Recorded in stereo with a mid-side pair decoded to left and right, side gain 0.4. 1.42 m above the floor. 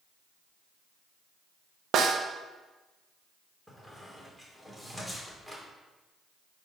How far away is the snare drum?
About 1.0 m.